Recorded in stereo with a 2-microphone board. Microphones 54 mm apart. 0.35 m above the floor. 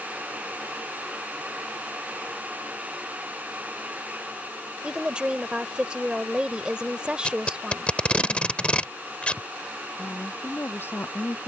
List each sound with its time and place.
4.8 s a woman speaking: 20° right (ahead or behind)
7.2 s tape being pulled: 20° left (ahead or behind)
10.0 s a woman speaking: 45° left (ahead or behind)